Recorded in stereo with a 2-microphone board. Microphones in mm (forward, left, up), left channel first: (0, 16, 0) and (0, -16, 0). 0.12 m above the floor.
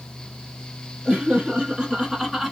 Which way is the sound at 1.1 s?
30° right (ahead or behind).